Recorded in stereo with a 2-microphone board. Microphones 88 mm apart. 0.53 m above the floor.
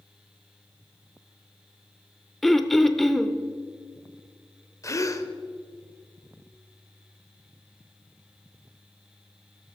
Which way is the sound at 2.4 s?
5° left (ahead or behind).